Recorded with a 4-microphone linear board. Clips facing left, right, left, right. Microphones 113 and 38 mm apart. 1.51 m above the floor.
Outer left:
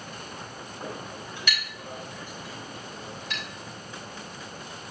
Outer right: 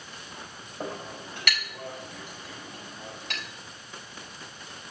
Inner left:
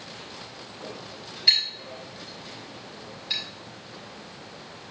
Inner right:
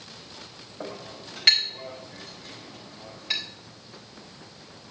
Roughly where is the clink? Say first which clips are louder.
Outer right 3 dB, inner right 3 dB; right.